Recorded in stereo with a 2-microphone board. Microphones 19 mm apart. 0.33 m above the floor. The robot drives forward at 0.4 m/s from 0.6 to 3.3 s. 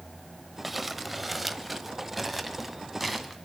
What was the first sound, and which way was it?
Crumpling, 5° right (ahead or behind).